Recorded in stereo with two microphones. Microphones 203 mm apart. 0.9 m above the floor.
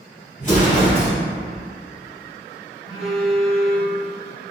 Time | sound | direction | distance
0.4 | an explosion | 40° left (ahead or behind) | 1.9 m
2.9 | a phone buzzing | centre (ahead or behind) | 1.3 m